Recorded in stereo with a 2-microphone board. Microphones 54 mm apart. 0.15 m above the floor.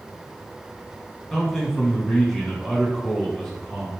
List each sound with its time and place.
1.3 s a man speaking: 10° left (ahead or behind), 1.3 m